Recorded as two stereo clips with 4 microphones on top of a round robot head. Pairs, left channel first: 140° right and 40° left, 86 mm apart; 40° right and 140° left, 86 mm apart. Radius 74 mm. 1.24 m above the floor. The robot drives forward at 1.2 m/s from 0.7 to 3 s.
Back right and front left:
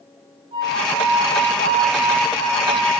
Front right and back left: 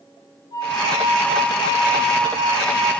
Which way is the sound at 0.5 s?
5° left.